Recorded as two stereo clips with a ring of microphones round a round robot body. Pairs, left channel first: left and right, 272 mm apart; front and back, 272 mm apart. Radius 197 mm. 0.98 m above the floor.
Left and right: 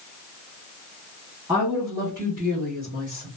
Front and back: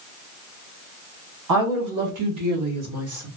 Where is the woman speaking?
175° right, 1.5 m; by 3.3 s 145° left, 1.7 m.